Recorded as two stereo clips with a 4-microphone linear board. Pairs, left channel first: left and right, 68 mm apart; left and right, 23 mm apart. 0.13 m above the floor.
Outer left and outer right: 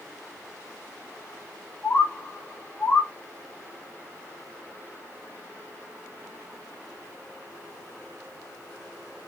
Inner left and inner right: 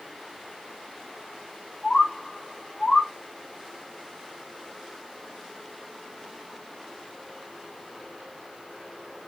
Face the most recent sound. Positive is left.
turn(degrees=20)  # may be behind; listen again after turning